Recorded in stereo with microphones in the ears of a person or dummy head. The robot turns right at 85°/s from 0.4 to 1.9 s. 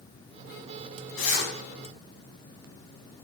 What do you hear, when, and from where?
1.2 s a zipper: 80° left, 3.5 m; by 1.5 s 55° left (ahead or behind), 3.5 m